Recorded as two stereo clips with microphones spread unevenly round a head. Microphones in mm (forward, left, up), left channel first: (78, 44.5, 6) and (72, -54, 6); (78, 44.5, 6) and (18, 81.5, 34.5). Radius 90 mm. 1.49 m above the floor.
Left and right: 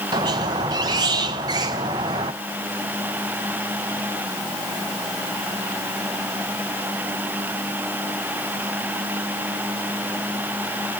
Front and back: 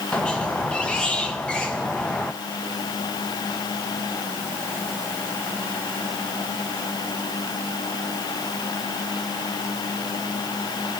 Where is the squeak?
135° right, 0.5 m.